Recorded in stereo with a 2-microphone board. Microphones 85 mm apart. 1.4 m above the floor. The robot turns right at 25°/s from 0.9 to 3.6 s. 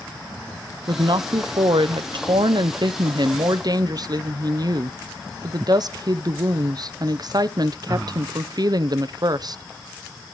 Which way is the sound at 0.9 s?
120° right.